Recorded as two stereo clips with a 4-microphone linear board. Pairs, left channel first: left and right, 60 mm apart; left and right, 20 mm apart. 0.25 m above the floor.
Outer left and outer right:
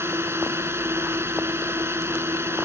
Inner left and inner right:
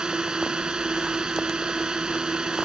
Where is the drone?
45° right (ahead or behind).